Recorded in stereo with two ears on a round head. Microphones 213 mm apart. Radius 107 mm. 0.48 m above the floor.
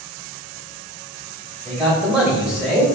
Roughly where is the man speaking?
Centre.